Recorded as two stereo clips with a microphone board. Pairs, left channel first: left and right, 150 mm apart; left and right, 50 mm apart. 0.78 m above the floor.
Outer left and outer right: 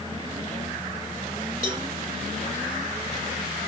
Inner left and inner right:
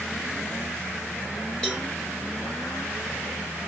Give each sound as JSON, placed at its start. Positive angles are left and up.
{"t": 1.6, "sound": "a cowbell", "side_deg": 20, "distance_m": 3.5}